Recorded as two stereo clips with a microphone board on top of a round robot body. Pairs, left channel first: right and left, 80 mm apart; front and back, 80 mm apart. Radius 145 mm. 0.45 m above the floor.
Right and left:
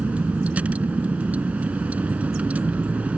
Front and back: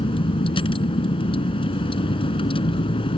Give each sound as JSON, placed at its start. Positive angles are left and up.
{"t": 0.0, "sound": "a vehicle", "azimuth_deg": 15}